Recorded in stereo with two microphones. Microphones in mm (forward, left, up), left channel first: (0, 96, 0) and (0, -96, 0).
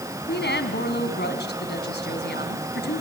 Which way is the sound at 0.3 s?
65° left (ahead or behind).